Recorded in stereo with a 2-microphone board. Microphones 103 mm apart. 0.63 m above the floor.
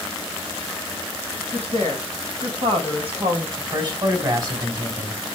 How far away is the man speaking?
About 3.5 m.